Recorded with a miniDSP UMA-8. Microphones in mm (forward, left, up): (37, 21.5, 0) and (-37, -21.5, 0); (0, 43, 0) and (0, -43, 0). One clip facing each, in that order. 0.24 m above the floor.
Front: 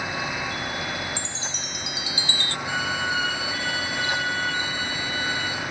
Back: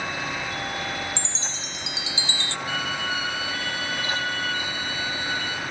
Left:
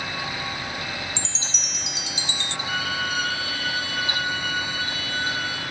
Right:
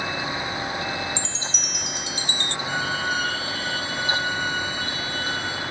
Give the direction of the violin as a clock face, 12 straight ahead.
1 o'clock.